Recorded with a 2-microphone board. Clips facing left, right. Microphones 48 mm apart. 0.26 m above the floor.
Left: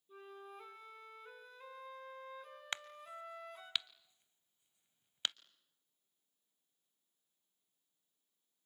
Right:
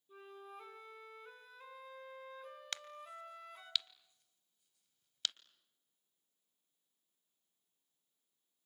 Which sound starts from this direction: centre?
A flute, at 0.1 s.